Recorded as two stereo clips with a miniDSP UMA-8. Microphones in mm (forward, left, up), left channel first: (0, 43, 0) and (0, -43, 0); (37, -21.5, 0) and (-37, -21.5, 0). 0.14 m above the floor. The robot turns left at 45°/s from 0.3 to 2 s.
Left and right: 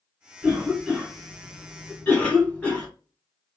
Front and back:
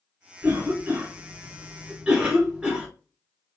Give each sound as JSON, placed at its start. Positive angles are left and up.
{"t": 0.4, "sound": "a cough", "azimuth_deg": -155, "distance_m": 1.3}